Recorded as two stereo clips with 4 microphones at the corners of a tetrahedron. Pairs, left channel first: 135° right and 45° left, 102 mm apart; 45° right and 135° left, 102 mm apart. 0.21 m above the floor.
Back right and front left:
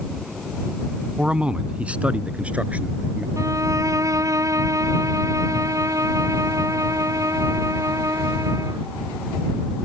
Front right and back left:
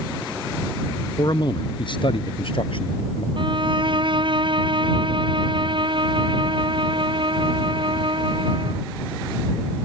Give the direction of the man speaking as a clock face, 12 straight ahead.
1 o'clock.